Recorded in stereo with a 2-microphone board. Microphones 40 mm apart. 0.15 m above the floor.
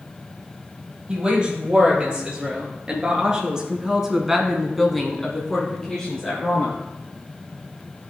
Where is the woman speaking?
25° right (ahead or behind), 3.5 m; by 6.8 s 20° left (ahead or behind), 2 m.